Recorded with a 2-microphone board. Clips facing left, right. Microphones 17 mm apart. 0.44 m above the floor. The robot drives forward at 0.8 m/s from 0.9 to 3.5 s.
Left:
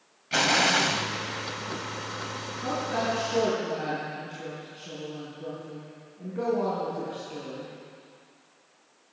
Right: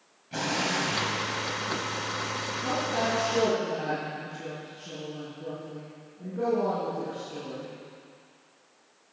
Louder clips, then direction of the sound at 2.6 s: Even; 15° left (ahead or behind).